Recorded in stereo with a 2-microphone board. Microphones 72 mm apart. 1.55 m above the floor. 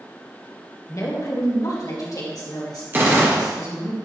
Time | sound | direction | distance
0.9 | a woman speaking | 45° left (ahead or behind) | 1.5 m
2.9 | a gunshot | 25° right (ahead or behind) | 1.3 m